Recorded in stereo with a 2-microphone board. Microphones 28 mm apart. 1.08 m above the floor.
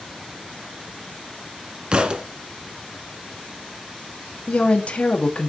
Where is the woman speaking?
50° left (ahead or behind), 1.5 m.